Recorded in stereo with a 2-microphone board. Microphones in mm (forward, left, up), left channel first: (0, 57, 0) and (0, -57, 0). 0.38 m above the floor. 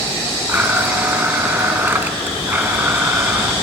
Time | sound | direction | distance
0.5 | a blender | 20° right (ahead or behind) | 0.7 m